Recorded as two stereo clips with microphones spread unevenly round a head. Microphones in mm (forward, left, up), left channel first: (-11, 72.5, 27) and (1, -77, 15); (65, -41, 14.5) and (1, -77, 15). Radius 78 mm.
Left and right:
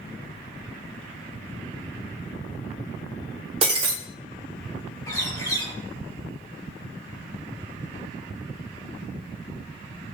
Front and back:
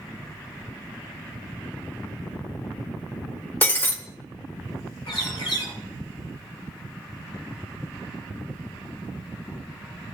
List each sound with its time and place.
3.6 s breaking glass: 30° right, 1.8 m
5.1 s a bird: 25° left, 3 m